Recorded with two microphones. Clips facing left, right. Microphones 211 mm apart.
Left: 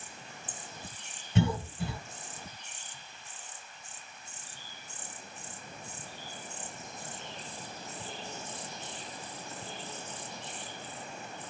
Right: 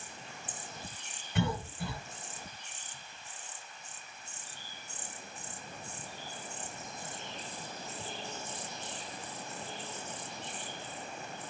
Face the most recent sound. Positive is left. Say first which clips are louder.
# left 4 dB
turn(degrees=25)  # may be behind; listen again after turning